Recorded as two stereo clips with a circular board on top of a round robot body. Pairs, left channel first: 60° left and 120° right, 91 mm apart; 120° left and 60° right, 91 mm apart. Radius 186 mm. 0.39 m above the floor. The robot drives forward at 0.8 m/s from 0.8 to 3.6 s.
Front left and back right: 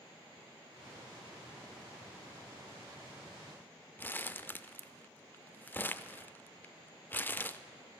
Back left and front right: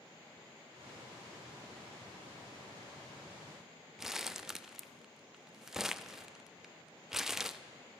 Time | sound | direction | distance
4.0 | crumpling | 20° left | 0.5 m